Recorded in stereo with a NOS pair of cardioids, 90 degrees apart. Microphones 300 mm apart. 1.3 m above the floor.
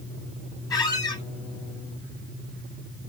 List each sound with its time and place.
0.7 s a squeak: 15° left, 0.7 m